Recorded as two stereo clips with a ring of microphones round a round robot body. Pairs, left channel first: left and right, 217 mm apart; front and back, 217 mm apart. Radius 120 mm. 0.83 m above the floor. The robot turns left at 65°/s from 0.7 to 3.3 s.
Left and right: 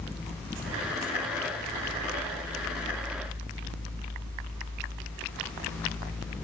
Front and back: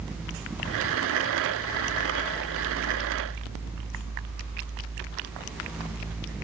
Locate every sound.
Only background noise.